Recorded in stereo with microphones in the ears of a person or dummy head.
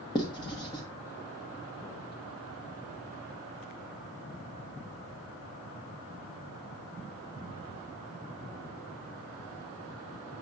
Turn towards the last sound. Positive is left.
turn(degrees=25)  # may be behind; listen again after turning